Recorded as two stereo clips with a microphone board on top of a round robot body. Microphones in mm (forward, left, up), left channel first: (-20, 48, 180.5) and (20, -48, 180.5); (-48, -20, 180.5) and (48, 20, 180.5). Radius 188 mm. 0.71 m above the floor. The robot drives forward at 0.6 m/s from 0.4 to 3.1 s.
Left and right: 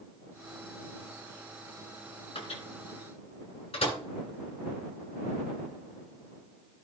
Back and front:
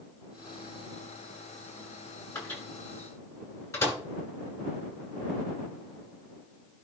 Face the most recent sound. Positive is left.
turn(degrees=140)